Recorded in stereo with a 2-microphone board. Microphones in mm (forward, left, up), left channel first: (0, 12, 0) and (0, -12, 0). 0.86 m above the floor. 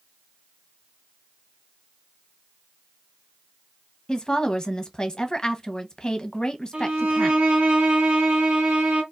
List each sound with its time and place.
4.1 s a woman speaking: 30° left (ahead or behind), 0.8 m
6.7 s a violin: 65° right (ahead or behind), 1.7 m